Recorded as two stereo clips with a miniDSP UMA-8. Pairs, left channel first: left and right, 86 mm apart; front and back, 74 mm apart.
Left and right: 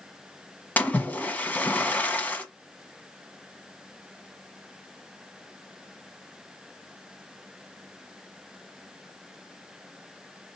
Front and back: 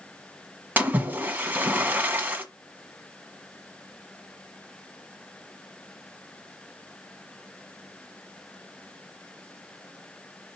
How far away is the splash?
About 1.4 m.